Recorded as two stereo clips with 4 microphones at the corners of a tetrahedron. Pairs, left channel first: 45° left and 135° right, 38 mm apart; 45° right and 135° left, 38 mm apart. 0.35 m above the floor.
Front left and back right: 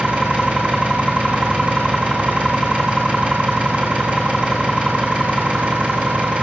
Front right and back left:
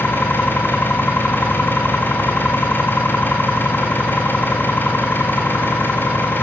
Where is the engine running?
75° right, 6 m.